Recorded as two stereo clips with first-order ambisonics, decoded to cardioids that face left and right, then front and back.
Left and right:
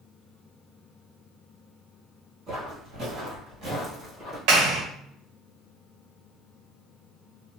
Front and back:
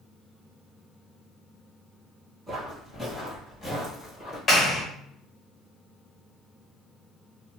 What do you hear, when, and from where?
2.5 s footsteps: 85° right, 1.9 m; by 4.4 s 25° right, 1.8 m
4.5 s a clap: 65° right, 1.0 m